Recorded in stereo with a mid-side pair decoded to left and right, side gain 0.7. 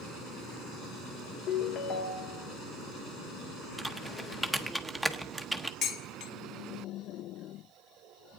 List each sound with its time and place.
1.5 s a ringtone: 45° left, 1.1 m
3.8 s typing on a keyboard: 5° right, 0.8 m
5.8 s dishes clattering: 45° left, 1.2 m